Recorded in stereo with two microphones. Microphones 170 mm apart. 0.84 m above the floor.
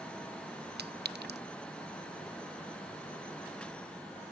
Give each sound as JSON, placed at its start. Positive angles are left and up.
{"t": 0.8, "sound": "a clink", "side_deg": -80, "distance_m": 0.6}